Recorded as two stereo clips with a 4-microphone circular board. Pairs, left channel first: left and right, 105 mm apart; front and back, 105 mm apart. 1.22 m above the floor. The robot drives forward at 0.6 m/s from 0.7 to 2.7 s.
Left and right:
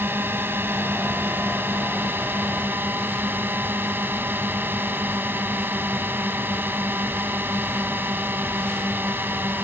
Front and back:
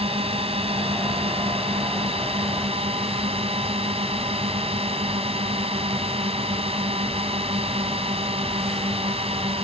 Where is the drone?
160° right.